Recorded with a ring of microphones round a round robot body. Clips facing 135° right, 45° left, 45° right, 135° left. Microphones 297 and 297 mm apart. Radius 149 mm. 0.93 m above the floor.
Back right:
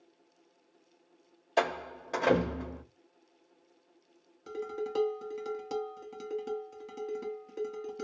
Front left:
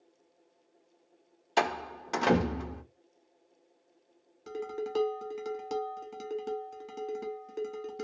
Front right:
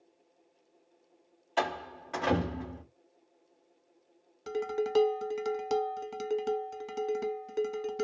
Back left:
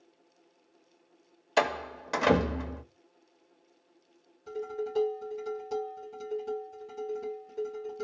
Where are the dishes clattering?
40° right, 0.6 m.